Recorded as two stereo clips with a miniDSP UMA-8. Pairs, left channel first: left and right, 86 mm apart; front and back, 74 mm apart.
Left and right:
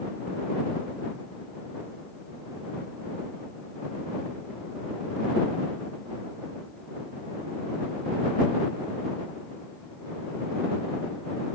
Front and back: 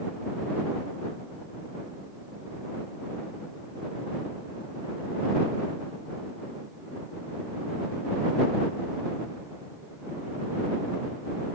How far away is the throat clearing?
I don't hear throat clearing.